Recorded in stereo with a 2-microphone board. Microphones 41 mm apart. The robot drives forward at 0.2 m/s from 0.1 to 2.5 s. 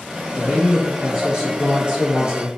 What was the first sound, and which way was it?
A man speaking, 20° right (ahead or behind).